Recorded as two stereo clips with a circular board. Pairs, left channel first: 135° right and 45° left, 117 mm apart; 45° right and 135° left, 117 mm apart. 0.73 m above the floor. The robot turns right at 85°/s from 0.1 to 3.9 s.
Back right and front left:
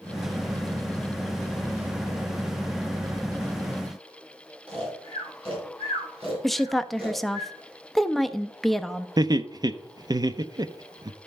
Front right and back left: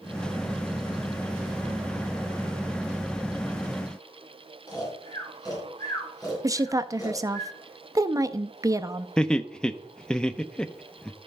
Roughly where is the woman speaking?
Behind left.